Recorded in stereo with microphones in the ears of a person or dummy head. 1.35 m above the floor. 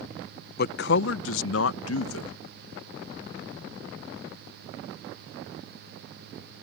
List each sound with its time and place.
0.6 s a man speaking: 60° left (ahead or behind); by 2.3 s 80° left